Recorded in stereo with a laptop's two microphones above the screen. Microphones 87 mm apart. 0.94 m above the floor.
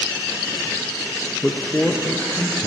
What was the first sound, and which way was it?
A man speaking, 15° left (ahead or behind).